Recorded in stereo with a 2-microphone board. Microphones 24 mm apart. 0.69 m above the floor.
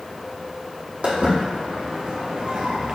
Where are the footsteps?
55° right (ahead or behind), 1.6 m; by 3.0 s 35° right (ahead or behind), 0.8 m.